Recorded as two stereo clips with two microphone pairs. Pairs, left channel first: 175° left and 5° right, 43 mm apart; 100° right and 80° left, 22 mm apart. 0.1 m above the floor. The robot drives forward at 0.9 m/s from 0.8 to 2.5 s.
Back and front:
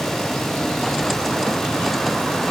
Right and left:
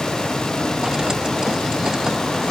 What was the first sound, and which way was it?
Only background noise.